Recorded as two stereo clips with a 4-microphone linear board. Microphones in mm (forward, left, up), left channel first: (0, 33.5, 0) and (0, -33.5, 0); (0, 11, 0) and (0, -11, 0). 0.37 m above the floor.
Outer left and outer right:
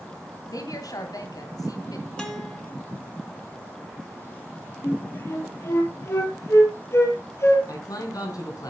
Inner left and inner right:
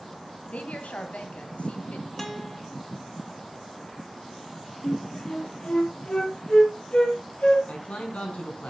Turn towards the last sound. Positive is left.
turn(degrees=60)  # may be behind; listen again after turning